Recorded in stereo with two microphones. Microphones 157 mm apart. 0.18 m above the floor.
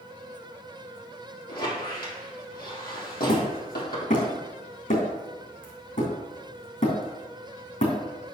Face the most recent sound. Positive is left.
turn(degrees=55)  # may be behind; listen again after turning